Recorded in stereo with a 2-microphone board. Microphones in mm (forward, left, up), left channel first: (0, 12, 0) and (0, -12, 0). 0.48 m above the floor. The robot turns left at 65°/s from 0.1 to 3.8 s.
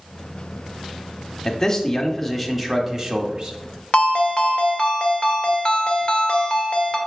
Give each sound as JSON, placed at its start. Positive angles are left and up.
{"t": 1.4, "sound": "a man speaking", "azimuth_deg": 65, "distance_m": 0.9}
{"t": 3.9, "sound": "a ringtone", "side_deg": 40, "distance_m": 1.0}